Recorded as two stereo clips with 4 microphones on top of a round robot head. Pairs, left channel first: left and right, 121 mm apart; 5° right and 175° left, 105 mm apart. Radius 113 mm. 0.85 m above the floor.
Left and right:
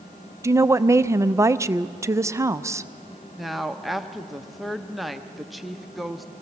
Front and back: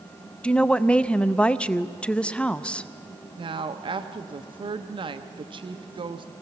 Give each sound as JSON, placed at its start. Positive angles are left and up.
{"t": 0.4, "sound": "a woman speaking", "azimuth_deg": -70, "distance_m": 0.6}
{"t": 3.4, "sound": "a woman speaking", "azimuth_deg": 180, "distance_m": 0.9}